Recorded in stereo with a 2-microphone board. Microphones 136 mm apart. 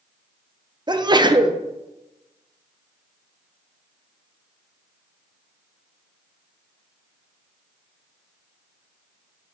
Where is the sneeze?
35° right (ahead or behind), 0.6 m.